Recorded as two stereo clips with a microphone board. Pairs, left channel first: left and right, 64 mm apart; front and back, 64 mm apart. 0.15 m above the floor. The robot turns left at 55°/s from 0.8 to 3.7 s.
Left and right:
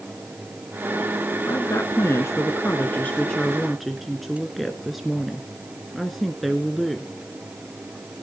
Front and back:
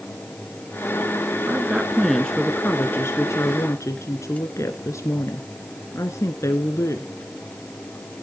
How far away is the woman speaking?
About 1.8 m.